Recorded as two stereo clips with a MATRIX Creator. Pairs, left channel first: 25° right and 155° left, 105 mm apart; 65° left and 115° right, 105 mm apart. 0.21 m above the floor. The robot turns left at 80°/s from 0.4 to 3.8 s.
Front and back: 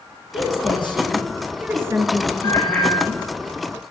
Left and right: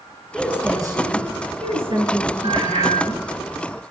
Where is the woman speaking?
20° right, 3.5 m; by 3.2 s 110° left, 3.5 m.